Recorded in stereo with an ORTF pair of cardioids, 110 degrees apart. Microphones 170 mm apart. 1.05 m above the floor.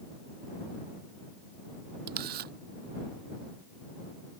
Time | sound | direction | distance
2.1 | a camera shutter | 70° right | ?